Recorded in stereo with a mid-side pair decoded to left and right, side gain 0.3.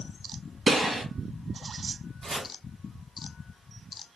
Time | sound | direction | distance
0.7 | a gunshot | 70° right | 2 m
2.2 | chopping | 70° right | 2.5 m